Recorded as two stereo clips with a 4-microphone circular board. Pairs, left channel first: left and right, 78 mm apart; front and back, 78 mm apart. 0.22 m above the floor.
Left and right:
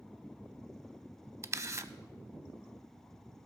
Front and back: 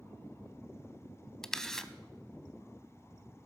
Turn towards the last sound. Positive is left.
turn(degrees=-80)